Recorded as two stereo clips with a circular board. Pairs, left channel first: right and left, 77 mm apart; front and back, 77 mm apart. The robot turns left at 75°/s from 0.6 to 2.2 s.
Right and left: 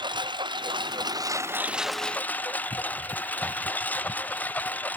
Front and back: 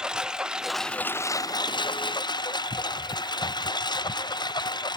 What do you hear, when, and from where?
0.0 s a lawn mower: 100° left; by 5.0 s 20° right